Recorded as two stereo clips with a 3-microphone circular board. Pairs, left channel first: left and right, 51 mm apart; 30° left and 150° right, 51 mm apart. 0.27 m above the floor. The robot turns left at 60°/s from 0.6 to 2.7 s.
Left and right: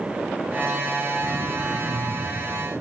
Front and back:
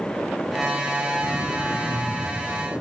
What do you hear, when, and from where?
1.2 s throat clearing: straight ahead, 3 m; by 2.5 s 80° right, 3 m